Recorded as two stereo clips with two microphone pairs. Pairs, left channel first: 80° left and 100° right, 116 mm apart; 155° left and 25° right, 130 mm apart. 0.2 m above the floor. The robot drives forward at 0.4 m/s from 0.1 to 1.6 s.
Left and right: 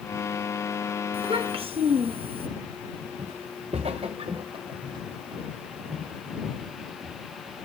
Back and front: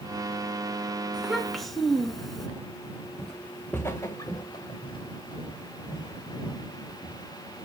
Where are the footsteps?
115° right, 0.9 m; by 7.2 s 160° right, 3 m.